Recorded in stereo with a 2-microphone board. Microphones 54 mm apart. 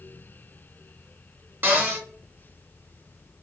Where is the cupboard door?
40° right (ahead or behind), 1.3 m.